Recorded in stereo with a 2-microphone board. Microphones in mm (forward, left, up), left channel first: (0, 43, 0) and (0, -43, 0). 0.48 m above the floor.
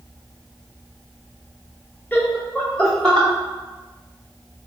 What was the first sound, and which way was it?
Laughter, 20° left (ahead or behind).